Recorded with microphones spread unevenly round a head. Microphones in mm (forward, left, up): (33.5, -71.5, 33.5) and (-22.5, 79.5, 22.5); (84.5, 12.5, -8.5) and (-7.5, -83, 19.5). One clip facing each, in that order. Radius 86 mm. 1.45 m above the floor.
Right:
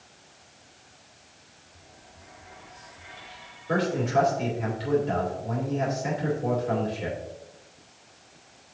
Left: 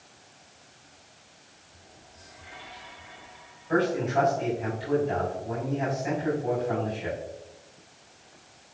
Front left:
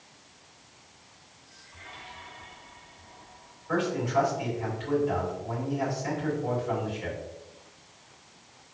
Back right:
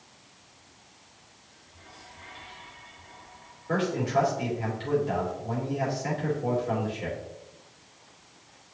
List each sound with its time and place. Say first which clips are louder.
3.7 s a man speaking: even, back right 1 dB; 75° right, 3 m